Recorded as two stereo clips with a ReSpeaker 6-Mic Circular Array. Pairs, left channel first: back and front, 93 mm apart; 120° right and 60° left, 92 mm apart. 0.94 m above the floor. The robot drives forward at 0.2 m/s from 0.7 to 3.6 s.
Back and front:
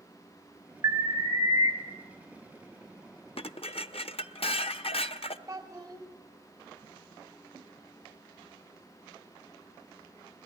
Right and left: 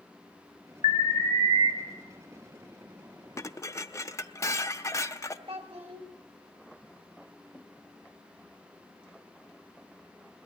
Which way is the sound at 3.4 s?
Straight behind.